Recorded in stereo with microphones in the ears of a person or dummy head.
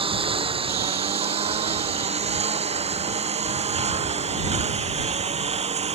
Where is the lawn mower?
25° right (ahead or behind); by 5.9 s 35° right (ahead or behind).